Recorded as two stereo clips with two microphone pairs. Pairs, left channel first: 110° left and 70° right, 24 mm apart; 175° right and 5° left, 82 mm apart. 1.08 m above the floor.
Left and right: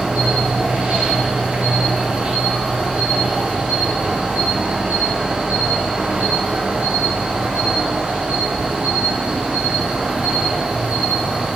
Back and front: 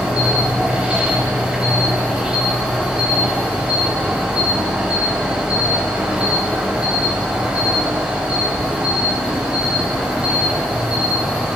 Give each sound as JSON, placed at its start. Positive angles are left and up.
{"t": 0.0, "sound": "an insect", "azimuth_deg": -70, "distance_m": 2.5}